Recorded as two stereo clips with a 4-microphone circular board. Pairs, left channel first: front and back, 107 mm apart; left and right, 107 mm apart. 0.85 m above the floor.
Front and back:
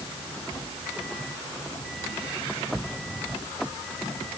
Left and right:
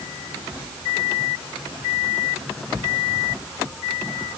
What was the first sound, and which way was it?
Only background noise.